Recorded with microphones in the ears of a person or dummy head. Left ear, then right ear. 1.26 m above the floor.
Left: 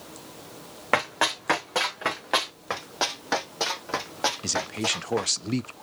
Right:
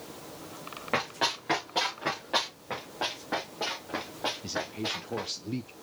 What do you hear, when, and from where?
0.9 s running footsteps: 40° left (ahead or behind), 3.5 m; by 2.5 s 50° left (ahead or behind), 4 m
2.7 s running footsteps: 60° left (ahead or behind), 3 m; by 5.3 s 35° left (ahead or behind), 3 m
4.4 s a man speaking: 55° left (ahead or behind), 0.6 m